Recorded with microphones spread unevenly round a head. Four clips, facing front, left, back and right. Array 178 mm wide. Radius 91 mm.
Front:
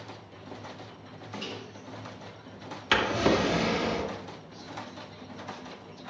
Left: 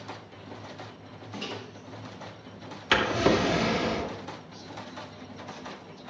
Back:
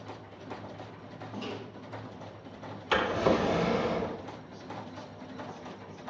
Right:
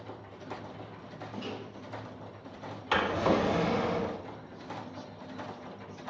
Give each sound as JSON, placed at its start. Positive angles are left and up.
{"t": 1.3, "sound": "a microwave", "azimuth_deg": 65, "distance_m": 6.0}
{"t": 2.9, "sound": "a drawer", "azimuth_deg": 45, "distance_m": 2.0}